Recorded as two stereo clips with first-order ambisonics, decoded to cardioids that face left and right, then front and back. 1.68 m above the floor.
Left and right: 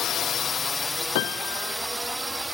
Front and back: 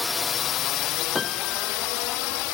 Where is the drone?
75° left; by 2.5 s 5° right.